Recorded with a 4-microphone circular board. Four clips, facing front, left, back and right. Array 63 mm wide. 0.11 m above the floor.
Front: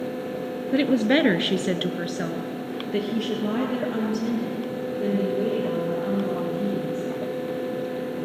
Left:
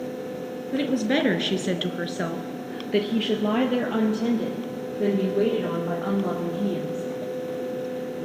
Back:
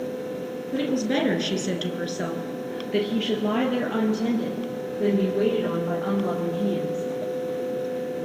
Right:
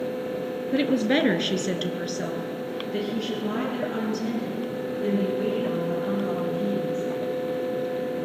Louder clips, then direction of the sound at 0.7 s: Right 1 dB, front 5 dB; 25° right.